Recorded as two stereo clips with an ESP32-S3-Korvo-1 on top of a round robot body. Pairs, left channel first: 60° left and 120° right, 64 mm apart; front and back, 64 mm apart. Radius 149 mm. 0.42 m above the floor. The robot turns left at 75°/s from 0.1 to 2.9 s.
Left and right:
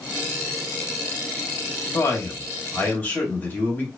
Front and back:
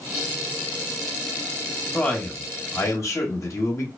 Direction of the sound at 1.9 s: 80° left.